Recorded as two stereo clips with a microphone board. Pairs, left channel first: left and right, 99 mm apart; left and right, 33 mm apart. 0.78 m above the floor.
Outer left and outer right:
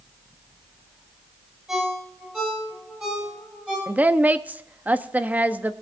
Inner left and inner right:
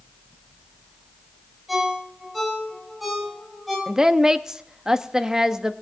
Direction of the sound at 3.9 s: 15° right (ahead or behind).